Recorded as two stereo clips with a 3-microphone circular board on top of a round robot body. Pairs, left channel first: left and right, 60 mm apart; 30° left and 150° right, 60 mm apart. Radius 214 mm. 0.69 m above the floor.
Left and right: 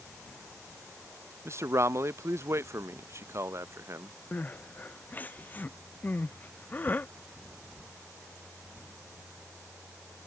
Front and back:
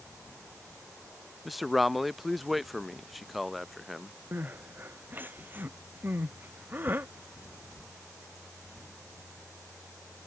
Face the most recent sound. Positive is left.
turn(degrees=150)